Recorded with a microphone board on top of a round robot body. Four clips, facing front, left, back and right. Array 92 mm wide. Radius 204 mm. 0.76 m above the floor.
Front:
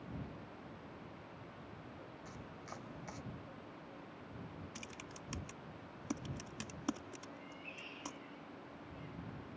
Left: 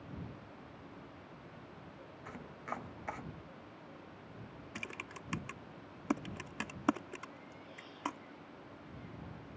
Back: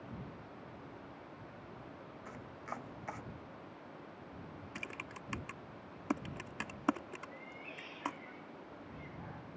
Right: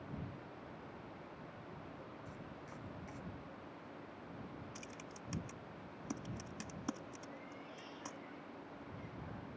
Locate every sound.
2.2 s chopping: 120° left
4.8 s typing on a keyboard: 135° left
7.3 s a cat meowing: 165° right